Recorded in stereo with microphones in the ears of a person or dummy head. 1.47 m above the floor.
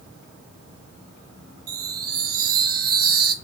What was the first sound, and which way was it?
A chime, 55° right (ahead or behind).